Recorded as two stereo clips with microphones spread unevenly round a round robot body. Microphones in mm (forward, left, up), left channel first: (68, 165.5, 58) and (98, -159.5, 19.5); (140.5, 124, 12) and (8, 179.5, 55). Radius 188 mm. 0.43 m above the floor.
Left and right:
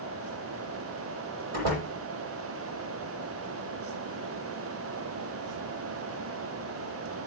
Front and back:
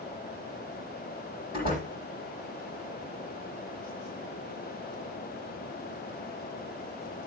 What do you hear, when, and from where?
1.5 s a door slam: 70° right, 9.5 m